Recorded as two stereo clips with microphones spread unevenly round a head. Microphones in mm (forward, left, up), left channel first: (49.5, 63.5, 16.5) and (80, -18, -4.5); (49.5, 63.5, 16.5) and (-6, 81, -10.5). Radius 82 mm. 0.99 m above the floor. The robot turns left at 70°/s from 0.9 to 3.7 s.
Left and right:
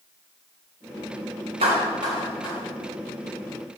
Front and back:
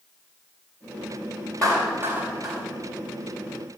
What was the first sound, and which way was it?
A clap, 100° right.